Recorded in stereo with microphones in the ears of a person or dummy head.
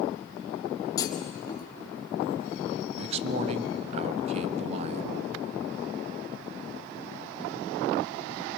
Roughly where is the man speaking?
Right.